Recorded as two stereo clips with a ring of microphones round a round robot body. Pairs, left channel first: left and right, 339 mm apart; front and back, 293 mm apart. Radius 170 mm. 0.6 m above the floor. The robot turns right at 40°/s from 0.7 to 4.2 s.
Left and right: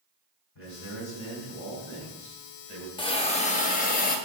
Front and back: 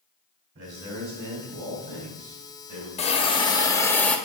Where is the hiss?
35° left, 1.0 m; by 4.2 s 80° left, 1.0 m.